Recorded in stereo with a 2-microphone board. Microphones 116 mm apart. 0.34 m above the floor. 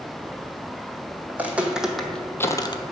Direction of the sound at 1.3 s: 15° right (ahead or behind).